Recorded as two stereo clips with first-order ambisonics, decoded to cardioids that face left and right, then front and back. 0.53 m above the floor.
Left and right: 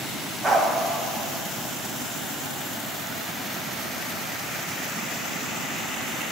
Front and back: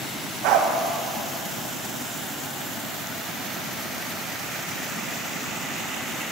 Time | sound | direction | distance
0.4 | a dog barking | 165° right | 1.0 m